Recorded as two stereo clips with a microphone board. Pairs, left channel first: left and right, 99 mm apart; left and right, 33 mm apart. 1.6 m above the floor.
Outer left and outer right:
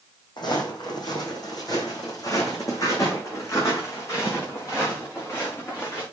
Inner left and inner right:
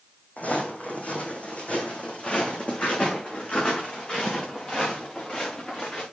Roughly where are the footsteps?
Left.